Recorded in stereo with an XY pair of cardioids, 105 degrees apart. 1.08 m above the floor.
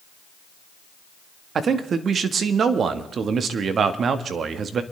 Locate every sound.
1.6 s a man speaking: 50° right, 1.4 m